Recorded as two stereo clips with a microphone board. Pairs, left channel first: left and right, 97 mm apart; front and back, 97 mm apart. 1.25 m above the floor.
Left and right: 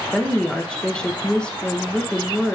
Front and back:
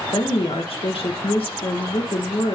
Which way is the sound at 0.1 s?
10° left.